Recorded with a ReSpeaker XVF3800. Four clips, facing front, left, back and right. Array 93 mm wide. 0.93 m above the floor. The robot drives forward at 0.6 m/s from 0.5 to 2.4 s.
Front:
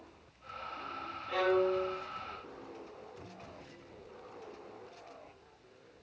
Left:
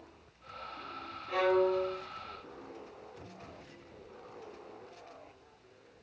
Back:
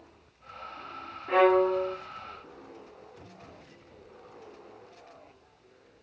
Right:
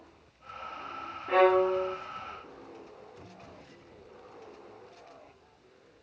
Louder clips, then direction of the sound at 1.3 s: Right 5 dB, back 8 dB; 140° right.